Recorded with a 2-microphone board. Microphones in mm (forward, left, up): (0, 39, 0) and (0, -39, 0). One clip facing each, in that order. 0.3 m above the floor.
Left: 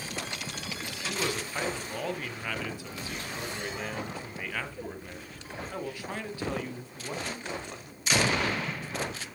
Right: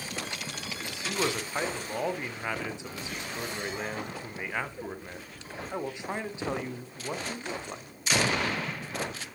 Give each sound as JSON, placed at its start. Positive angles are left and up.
{"t": 0.8, "sound": "a man speaking", "side_deg": -20, "distance_m": 1.9}